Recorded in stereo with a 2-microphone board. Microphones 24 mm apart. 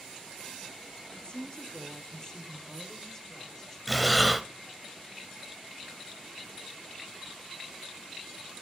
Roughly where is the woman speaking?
Left.